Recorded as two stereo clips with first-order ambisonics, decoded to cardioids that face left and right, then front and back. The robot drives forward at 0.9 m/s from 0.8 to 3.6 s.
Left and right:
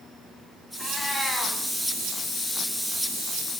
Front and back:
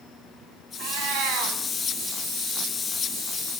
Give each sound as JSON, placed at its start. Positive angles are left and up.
{"t": 0.8, "sound": "a cat meowing", "azimuth_deg": 180, "distance_m": 3.0}